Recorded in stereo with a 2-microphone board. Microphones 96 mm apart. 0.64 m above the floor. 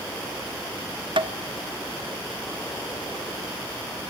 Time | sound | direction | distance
1.2 | tapping | 55° right (ahead or behind) | 0.9 m